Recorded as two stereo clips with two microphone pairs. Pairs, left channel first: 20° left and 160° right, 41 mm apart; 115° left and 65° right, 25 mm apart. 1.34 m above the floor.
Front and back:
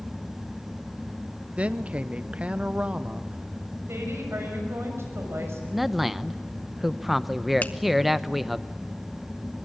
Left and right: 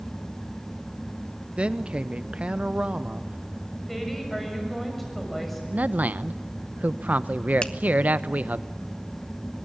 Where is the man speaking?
75° right, 0.7 m.